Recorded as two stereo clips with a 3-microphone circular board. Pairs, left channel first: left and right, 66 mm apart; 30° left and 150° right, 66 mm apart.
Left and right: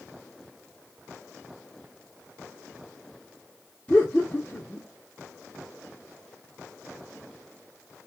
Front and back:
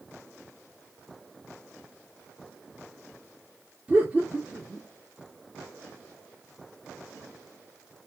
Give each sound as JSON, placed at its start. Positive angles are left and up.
{"t": 3.9, "sound": "laughter", "azimuth_deg": 140, "distance_m": 1.3}